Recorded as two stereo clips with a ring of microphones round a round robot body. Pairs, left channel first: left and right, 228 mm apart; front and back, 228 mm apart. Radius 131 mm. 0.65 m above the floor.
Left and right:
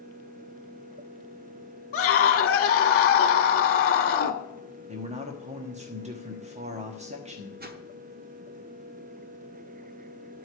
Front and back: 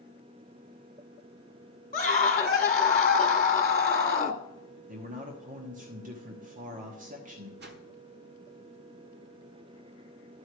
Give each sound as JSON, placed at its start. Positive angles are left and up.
{"t": 1.9, "sound": "a scream", "azimuth_deg": 55, "distance_m": 1.4}
{"t": 4.9, "sound": "a man speaking", "azimuth_deg": -140, "distance_m": 1.2}
{"t": 7.6, "sound": "a whoosh", "azimuth_deg": -135, "distance_m": 1.1}